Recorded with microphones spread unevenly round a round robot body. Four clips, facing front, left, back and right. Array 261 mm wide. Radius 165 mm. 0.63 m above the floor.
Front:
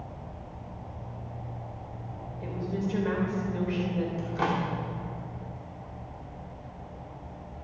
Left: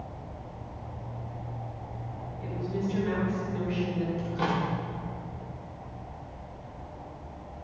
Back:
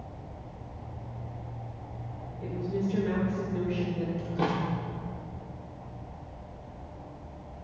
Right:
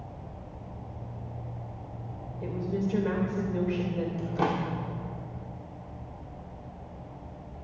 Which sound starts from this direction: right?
A woman speaking, at 2.4 s.